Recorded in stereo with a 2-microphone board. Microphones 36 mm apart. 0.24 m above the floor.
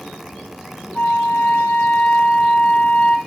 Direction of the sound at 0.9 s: 45° left (ahead or behind).